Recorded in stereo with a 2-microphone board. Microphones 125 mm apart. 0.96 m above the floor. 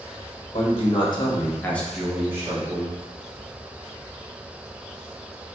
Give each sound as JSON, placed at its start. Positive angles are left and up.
{"t": 0.5, "sound": "a man speaking", "side_deg": 50, "distance_m": 1.2}